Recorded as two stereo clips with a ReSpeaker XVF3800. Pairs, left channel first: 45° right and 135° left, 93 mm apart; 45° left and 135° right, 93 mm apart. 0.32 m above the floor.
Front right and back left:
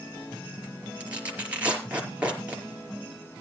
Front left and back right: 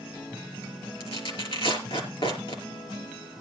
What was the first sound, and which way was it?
Tearing paper, 60° left.